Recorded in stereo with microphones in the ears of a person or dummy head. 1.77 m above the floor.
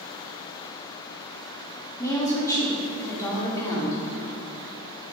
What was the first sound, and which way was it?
A woman speaking, 15° left (ahead or behind).